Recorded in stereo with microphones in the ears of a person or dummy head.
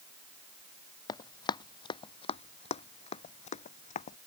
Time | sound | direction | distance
1.1 | running footsteps | 20° left (ahead or behind) | ?